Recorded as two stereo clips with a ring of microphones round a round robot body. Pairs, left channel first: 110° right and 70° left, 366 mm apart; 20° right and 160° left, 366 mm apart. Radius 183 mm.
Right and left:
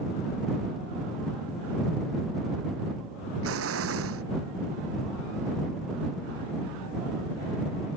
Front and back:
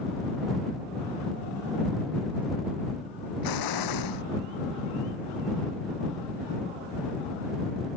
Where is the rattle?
No rattle in this recording.